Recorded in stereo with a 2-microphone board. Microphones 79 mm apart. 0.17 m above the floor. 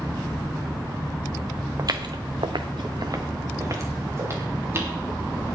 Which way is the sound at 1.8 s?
45° right (ahead or behind).